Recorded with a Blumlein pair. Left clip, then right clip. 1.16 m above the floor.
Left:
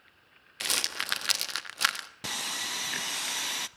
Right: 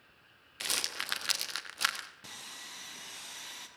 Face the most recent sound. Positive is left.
turn(degrees=30)